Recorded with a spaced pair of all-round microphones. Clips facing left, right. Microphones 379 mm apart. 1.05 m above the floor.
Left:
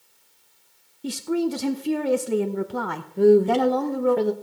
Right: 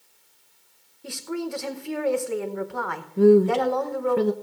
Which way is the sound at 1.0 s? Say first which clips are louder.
Left 7 dB; 50° left (ahead or behind).